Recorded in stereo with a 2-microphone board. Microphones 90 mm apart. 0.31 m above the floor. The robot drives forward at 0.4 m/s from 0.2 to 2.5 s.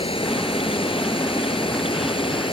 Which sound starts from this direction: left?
Running water, at 0.0 s.